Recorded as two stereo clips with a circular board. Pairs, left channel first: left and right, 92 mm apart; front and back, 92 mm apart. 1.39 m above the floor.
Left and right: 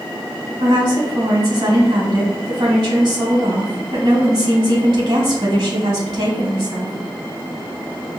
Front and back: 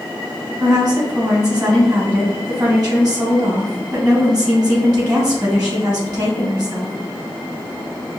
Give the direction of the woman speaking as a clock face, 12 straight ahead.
4 o'clock.